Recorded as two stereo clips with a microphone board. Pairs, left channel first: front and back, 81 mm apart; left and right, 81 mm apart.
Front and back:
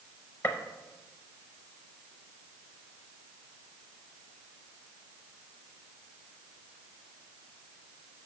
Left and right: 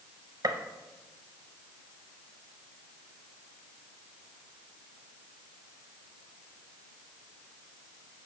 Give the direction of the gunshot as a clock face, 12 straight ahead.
2 o'clock.